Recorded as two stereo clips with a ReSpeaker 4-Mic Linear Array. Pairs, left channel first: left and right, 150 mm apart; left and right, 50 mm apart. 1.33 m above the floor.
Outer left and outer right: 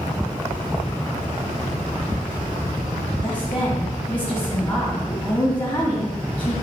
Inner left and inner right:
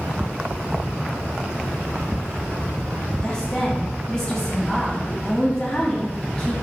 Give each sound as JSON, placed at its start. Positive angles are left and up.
{"t": 3.2, "sound": "a woman speaking", "side_deg": 30, "distance_m": 2.0}